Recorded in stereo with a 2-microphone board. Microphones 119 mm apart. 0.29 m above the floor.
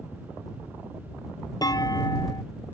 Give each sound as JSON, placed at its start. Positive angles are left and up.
{"t": 1.6, "sound": "a clunk", "side_deg": 30}